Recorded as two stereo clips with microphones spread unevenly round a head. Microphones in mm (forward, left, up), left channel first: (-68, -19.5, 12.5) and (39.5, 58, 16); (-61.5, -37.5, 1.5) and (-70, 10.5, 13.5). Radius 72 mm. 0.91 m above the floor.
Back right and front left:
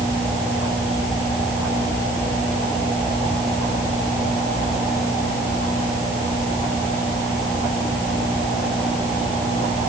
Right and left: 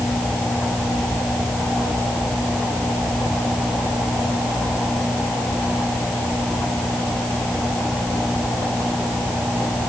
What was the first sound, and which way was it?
Only background noise.